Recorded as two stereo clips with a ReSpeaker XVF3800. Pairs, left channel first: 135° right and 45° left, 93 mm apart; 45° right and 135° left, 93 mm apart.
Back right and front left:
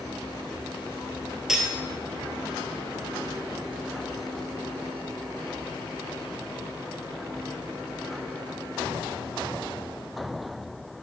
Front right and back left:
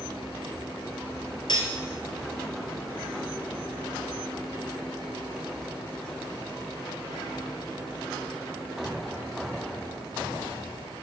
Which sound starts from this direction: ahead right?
Cutlery clinking, at 1.5 s.